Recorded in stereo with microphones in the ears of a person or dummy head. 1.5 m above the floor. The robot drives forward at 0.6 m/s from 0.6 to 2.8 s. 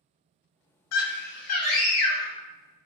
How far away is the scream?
About 0.5 m.